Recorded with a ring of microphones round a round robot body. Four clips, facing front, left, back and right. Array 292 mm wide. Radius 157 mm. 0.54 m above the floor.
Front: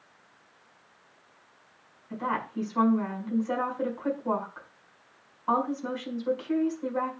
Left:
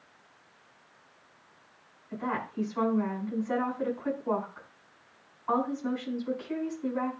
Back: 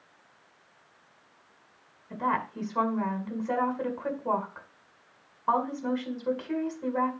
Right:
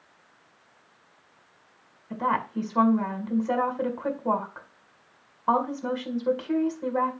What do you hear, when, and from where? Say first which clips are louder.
2.1 s a woman speaking: right 7 dB, back 2 dB; 110° right, 5 m